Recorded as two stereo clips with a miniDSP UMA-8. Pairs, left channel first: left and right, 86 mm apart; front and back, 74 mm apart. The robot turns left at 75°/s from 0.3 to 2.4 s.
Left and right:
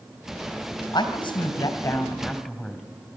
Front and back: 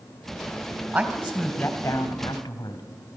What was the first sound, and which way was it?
A woman speaking, 130° left.